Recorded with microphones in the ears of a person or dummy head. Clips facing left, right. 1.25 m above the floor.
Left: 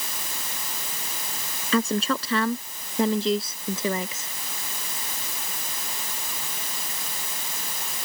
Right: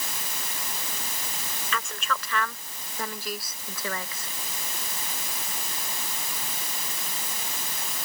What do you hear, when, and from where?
1.7 s a woman speaking: 30° left (ahead or behind); by 4.3 s 15° left (ahead or behind)